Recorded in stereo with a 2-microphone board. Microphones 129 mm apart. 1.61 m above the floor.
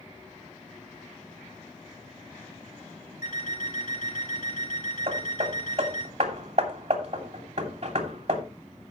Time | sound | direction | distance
3.2 | an alarm clock | 75° left (ahead or behind) | 4 m
5.1 | hammering | 50° right (ahead or behind) | 2.5 m